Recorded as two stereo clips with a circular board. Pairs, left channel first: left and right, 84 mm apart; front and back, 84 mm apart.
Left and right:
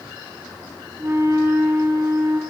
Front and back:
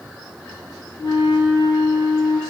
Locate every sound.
1.0 s a flute: 30° right, 4.5 m